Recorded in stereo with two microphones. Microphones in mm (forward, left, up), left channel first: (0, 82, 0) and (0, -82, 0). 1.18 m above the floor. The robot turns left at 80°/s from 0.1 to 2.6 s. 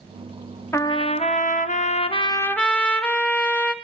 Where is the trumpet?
160° left, 0.8 m; by 3.7 s 10° left, 0.8 m.